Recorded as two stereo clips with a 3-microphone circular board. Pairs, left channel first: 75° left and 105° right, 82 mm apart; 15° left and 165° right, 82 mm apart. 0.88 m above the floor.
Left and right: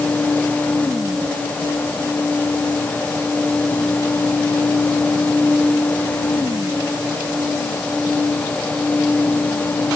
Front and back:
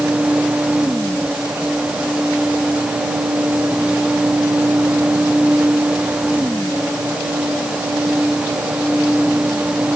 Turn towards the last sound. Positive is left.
No sound to turn to.